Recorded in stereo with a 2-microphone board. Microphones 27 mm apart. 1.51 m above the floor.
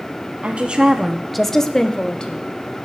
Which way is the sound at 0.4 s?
55° right (ahead or behind).